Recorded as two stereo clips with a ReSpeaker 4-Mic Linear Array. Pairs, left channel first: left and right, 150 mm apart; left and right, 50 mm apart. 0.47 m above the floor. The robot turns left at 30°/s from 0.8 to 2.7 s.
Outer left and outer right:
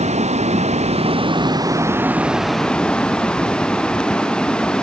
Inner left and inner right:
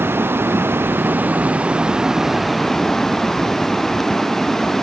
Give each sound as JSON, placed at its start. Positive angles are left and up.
{"t": 0.0, "sound": "running water", "azimuth_deg": -130}